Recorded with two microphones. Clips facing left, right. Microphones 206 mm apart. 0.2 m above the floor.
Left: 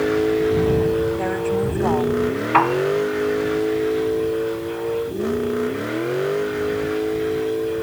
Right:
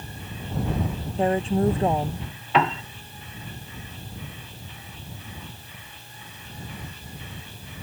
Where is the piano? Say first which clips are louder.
Left 3 dB; 30° right (ahead or behind).